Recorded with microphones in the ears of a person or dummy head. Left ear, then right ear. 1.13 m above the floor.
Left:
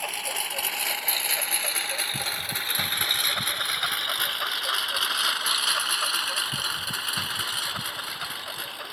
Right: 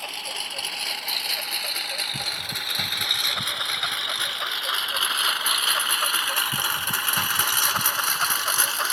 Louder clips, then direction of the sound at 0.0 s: Even; 20° left (ahead or behind).